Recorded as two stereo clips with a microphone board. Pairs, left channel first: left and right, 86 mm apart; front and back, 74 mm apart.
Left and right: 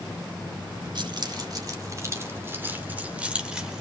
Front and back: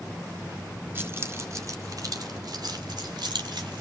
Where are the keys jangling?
120° right, 2 m; by 3.8 s 175° right, 3 m.